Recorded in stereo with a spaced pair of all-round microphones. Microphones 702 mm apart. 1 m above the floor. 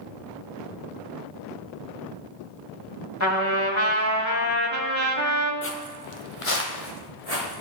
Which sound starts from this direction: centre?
Footsteps, at 5.6 s.